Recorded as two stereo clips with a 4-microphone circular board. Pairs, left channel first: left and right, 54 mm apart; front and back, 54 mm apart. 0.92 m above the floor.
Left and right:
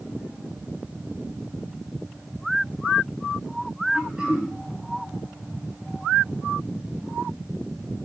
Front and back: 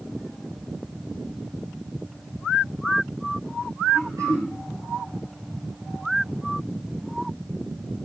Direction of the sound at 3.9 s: 165° right.